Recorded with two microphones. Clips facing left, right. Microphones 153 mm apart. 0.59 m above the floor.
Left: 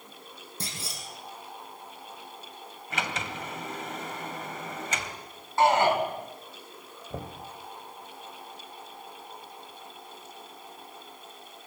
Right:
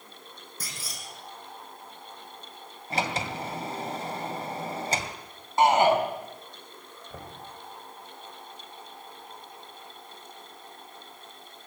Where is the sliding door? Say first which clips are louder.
Right 4 dB; 35° right (ahead or behind), 2.5 m.